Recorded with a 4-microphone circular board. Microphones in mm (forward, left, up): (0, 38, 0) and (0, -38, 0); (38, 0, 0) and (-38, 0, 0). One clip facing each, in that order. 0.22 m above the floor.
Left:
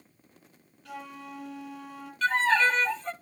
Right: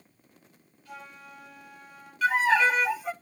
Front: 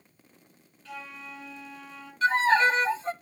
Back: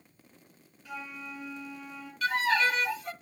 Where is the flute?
100° left, 7 m.